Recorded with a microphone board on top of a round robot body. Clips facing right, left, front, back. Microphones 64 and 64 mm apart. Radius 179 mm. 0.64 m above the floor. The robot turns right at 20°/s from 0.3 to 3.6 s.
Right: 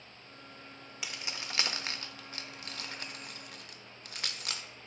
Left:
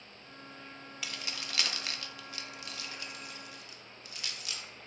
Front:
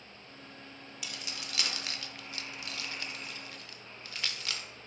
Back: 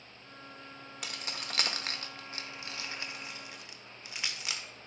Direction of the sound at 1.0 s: 160° right.